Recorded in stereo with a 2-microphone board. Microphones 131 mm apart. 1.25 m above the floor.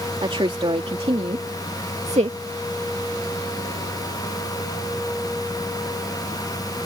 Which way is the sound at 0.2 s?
45° right (ahead or behind).